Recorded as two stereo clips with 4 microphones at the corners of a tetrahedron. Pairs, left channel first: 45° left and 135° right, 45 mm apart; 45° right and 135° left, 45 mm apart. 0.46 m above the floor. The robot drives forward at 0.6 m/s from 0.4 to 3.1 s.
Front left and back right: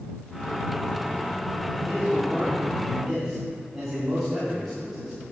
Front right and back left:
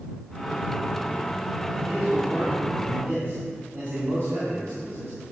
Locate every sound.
1.9 s a man speaking: 120° left, 2 m; by 5.2 s 135° left, 2.5 m